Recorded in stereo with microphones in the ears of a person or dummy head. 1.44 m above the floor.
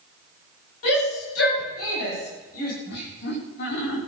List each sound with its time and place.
0.8 s a shout: 75° left (ahead or behind), 10 m; by 2.7 s 80° left, 9 m
2.9 s laughter: 55° left (ahead or behind), 4.5 m